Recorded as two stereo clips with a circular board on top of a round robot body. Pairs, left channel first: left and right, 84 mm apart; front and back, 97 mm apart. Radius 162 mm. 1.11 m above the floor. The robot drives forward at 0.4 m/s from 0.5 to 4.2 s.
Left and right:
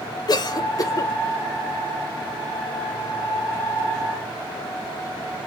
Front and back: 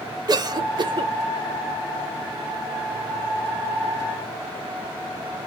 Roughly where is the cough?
Behind left.